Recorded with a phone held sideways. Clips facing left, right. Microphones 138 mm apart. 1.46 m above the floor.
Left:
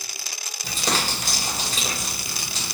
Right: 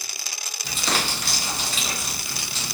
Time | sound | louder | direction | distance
0.6 | crumpling | left 1 dB | 40° left (ahead or behind) | 1.5 m